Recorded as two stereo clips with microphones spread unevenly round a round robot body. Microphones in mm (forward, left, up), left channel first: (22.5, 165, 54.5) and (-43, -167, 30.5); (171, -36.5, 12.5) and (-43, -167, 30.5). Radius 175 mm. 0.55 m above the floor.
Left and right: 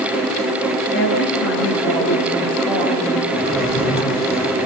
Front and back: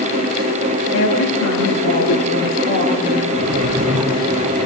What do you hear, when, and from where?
0.9 s a woman speaking: 20° left, 10 m
3.3 s a drawer: 135° left, 9 m